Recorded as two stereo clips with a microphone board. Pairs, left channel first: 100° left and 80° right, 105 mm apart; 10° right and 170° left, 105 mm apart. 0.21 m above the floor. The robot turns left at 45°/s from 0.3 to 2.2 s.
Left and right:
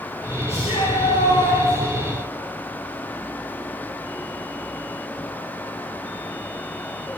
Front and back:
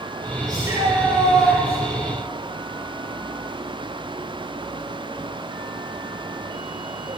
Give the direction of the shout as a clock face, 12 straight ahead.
8 o'clock.